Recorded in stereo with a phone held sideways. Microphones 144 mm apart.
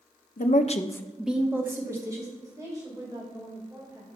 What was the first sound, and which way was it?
A woman speaking, 65° left (ahead or behind).